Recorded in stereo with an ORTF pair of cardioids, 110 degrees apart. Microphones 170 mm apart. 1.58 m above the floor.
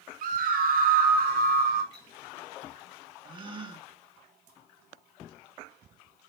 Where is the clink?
25° right, 5.5 m.